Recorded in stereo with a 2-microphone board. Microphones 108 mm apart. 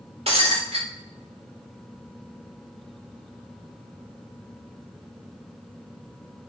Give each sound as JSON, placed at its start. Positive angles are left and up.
{"t": 0.3, "sound": "breaking glass", "side_deg": -65, "distance_m": 5.5}